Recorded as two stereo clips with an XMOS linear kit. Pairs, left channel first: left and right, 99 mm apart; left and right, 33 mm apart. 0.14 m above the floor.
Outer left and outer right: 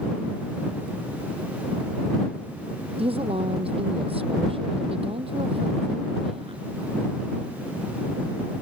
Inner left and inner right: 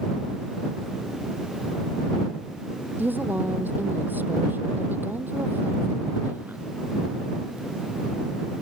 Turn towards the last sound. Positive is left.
turn(degrees=-75)  # may be behind; listen again after turning